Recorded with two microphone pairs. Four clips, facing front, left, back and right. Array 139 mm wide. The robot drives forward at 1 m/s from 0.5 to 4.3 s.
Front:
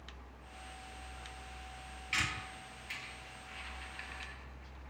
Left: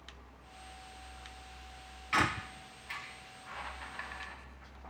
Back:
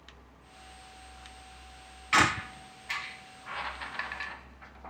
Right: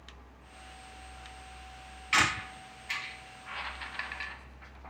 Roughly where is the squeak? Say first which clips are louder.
Right 2 dB, back 14 dB; behind.